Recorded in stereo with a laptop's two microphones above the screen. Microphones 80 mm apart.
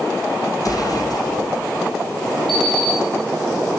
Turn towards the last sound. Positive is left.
turn(degrees=5)  # may be behind; listen again after turning